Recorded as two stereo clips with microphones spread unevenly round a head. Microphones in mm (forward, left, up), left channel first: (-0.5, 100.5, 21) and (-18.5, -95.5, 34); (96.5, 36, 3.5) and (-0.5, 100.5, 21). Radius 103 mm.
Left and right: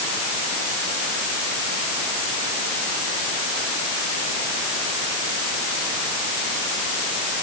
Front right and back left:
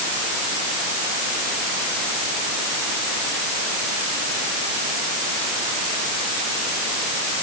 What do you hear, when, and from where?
Only background noise.